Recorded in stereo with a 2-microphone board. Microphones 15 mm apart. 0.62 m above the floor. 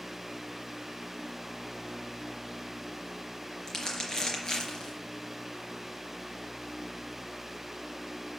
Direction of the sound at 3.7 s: 40° left (ahead or behind).